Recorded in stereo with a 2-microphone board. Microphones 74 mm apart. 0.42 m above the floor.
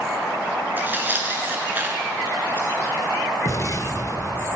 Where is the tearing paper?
25° right (ahead or behind), 2 m.